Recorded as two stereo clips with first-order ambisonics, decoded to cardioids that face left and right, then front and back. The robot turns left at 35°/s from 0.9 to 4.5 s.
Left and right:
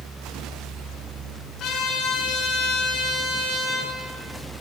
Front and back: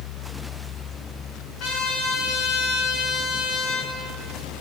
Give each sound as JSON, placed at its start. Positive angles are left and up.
{"t": 1.6, "sound": "a trumpet", "azimuth_deg": 35, "distance_m": 7.0}